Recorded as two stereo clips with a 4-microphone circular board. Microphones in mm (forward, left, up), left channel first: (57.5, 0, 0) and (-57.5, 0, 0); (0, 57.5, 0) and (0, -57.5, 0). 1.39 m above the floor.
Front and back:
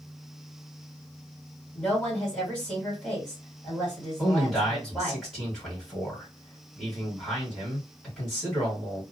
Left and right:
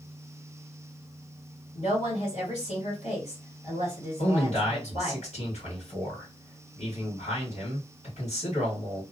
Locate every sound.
1.7 s a woman speaking: 90° left, 1.7 m
4.2 s a man speaking: 90° left, 1.7 m